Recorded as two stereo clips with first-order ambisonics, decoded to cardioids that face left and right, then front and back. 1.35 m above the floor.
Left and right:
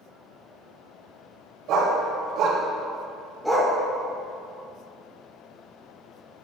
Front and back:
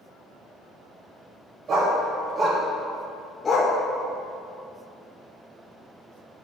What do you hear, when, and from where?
1.7 s a dog barking: 125° right, 1.8 m; by 3.8 s 20° left, 1.1 m